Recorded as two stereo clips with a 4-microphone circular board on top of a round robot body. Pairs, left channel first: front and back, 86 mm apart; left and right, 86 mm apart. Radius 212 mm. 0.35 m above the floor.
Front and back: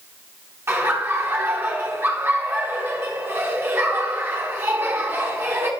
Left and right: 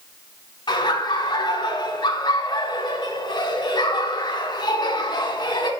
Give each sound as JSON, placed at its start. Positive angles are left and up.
{"t": 0.7, "sound": "laughter", "azimuth_deg": 120, "distance_m": 4.0}